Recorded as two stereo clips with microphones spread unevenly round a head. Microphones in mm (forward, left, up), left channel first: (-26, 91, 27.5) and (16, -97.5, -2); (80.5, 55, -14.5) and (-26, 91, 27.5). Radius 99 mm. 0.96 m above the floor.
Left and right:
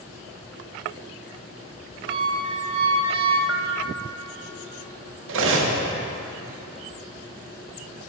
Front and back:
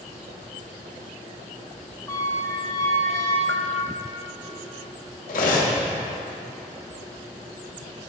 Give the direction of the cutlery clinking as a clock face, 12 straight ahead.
2 o'clock.